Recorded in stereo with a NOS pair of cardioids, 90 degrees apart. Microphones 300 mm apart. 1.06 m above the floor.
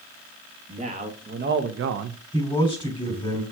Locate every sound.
0.7 s a man speaking: 20° right, 1.4 m; by 2.2 s 75° right, 0.5 m
2.3 s a man speaking: 15° left, 3 m